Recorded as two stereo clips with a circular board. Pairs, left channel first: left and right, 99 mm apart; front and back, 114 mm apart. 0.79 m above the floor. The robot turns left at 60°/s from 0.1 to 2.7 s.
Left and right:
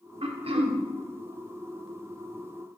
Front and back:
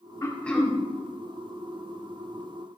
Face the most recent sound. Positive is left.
turn(degrees=145)